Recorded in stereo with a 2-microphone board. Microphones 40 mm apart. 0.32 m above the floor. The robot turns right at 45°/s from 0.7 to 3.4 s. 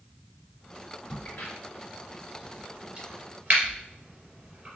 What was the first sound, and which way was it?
A crack, 55° left (ahead or behind).